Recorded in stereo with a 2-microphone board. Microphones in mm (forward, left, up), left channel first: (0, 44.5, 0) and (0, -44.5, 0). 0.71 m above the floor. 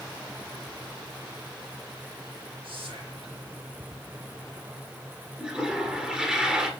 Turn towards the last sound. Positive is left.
turn(degrees=-10)  # may be behind; listen again after turning